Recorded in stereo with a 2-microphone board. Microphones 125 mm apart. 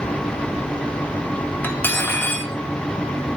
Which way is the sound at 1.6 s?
15° left (ahead or behind).